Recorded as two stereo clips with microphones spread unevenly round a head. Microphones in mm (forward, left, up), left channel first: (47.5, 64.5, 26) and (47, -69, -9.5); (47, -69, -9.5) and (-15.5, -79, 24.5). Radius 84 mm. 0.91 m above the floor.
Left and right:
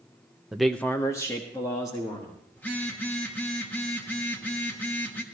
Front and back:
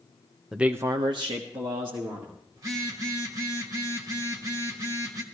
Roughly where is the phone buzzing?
Behind.